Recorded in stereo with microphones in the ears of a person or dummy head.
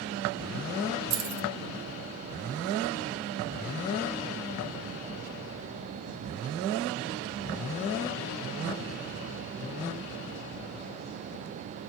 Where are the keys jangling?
60° right (ahead or behind), 1.6 m.